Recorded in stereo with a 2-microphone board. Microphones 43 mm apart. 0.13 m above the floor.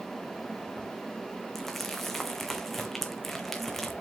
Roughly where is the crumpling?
Centre.